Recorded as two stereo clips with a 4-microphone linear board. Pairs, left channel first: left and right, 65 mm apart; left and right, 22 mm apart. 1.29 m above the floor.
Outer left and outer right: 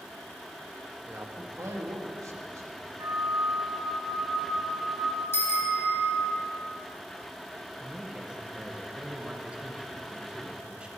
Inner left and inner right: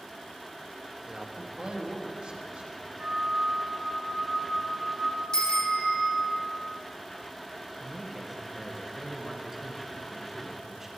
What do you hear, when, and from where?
1.1 s a man speaking: 40° right (ahead or behind), 1.2 m; by 2.9 s 55° right (ahead or behind), 2.5 m
3.0 s a flute: 50° right (ahead or behind), 5 m
5.3 s a bicycle bell: 35° left (ahead or behind), 2.5 m
7.8 s a man speaking: 15° right (ahead or behind), 1.6 m